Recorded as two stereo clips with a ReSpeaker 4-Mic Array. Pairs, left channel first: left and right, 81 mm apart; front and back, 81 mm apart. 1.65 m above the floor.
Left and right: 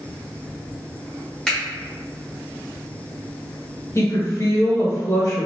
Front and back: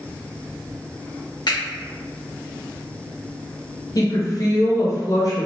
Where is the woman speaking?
40° left, 1.1 m.